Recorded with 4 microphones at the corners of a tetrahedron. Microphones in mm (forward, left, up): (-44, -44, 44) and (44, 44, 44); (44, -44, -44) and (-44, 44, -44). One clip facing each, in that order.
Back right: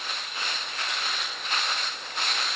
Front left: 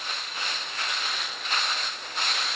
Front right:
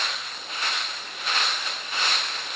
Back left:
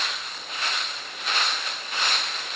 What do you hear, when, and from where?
Only background noise.